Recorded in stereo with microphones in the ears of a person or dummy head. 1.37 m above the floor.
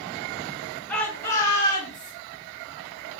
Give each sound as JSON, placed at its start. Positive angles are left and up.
{"t": 0.9, "sound": "a shout", "side_deg": 5, "distance_m": 1.0}